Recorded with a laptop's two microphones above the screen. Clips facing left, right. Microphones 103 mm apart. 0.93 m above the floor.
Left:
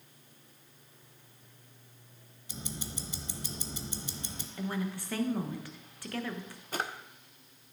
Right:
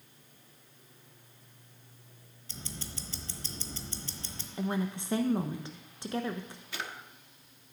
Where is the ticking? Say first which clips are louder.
Left 3 dB; 15° left (ahead or behind), 0.9 m.